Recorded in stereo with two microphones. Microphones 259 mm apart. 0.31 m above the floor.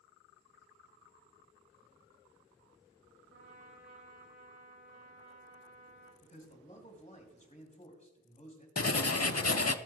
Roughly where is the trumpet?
Right.